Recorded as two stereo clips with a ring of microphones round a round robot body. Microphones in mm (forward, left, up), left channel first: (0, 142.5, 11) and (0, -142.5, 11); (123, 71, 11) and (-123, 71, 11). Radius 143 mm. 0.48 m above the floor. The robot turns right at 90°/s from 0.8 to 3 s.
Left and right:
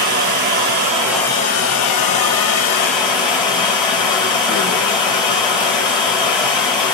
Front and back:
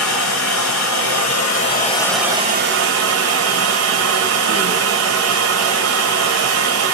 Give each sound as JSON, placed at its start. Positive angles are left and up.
{"t": 0.0, "sound": "running water", "azimuth_deg": -35, "distance_m": 1.7}